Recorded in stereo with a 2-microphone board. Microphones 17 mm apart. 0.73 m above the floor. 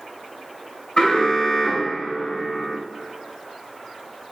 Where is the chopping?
No chopping in this recording.